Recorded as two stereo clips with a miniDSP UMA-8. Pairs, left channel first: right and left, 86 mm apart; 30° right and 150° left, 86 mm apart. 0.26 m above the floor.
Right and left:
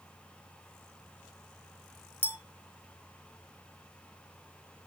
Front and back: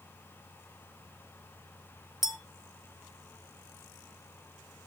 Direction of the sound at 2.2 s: 130° right.